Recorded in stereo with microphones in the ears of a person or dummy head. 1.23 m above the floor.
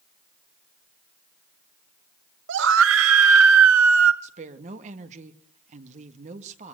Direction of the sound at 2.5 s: 65° right (ahead or behind).